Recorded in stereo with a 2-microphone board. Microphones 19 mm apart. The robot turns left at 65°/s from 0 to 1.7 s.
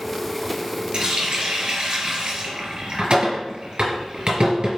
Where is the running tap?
40° right (ahead or behind), 1.6 m; by 4.8 s 55° right (ahead or behind), 1.6 m.